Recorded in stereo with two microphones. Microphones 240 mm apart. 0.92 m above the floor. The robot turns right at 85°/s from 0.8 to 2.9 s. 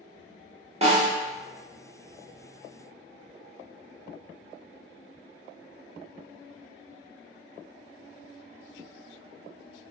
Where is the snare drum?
25° right (ahead or behind), 1.0 m; by 1.2 s 20° right (ahead or behind), 1.0 m.